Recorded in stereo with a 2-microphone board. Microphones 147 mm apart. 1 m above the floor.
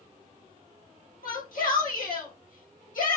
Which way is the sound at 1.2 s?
70° left (ahead or behind).